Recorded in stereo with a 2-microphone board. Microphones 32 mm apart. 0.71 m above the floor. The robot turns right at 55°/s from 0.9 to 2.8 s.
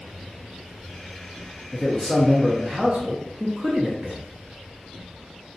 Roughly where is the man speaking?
Behind.